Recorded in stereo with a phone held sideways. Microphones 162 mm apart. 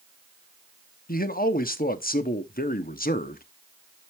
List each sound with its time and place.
1.1 s a man speaking: 70° left (ahead or behind), 0.9 m